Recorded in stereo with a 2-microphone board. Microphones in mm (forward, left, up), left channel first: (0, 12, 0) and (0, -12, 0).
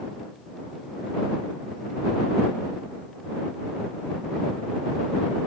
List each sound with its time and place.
Only background noise.